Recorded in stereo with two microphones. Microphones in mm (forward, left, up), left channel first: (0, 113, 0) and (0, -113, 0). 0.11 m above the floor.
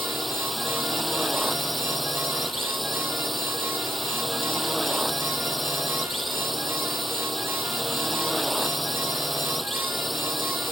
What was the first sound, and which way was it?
A drone, centre (ahead or behind).